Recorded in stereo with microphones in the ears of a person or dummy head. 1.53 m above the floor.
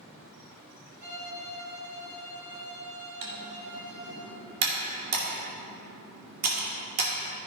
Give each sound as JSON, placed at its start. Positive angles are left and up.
{"t": 1.0, "sound": "a violin", "side_deg": -65, "distance_m": 3.0}
{"t": 3.2, "sound": "typing on a keyboard", "side_deg": -50, "distance_m": 2.0}